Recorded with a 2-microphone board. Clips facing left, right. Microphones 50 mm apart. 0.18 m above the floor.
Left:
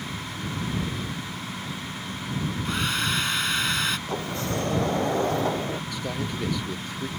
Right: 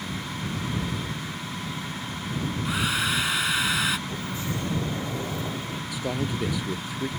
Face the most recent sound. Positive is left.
turn(degrees=-10)  # may be behind; listen again after turning